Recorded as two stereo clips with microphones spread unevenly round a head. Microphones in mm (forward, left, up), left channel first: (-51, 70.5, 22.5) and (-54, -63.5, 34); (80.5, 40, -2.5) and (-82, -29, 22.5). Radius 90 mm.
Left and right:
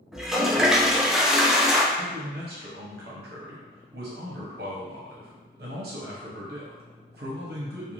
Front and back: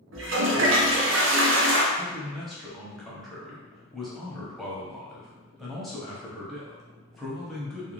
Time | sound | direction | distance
0.1 | a toilet flushing | straight behind | 0.6 m
1.9 | a man speaking | 70° right | 0.8 m